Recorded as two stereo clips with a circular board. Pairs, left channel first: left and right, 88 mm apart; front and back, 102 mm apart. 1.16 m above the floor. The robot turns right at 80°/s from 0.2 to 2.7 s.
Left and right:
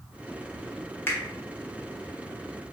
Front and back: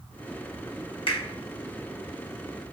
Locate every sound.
1.1 s a finger snap: 25° left, 1.2 m; by 1.2 s 35° left, 1.2 m